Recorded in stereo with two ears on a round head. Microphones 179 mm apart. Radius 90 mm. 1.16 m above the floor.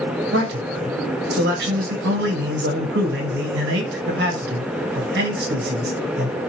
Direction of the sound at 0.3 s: 55° right (ahead or behind).